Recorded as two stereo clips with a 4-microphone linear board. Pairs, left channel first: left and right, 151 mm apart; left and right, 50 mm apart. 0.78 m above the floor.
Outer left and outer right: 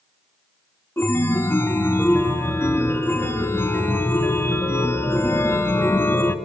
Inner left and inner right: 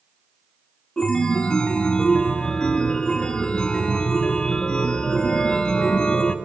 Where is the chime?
15° left (ahead or behind), 0.7 m.